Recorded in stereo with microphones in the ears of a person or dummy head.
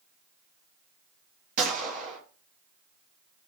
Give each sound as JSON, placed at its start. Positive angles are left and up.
{"t": 1.6, "sound": "a gunshot", "side_deg": -40, "distance_m": 0.8}